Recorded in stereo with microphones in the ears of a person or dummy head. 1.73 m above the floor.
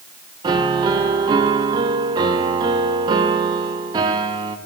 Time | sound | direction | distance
0.4 | a piano | 30° right (ahead or behind) | 0.6 m